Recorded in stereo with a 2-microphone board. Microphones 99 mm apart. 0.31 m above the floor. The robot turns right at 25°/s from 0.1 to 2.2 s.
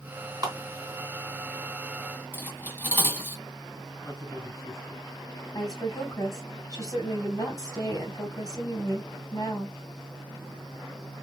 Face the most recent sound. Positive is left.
turn(degrees=40)  # may be behind; listen again after turning